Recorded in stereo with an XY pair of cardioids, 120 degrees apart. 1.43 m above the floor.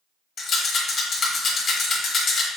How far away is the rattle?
About 1.4 m.